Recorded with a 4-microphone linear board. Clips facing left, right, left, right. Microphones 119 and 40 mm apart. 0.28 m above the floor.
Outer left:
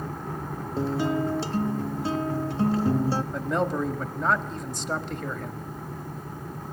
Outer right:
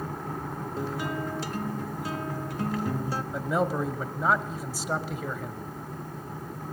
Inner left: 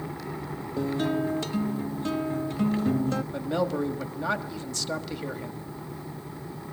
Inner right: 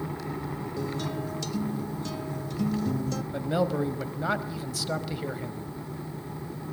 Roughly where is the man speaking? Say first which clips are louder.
Outer left 1 dB, inner right 5 dB; centre.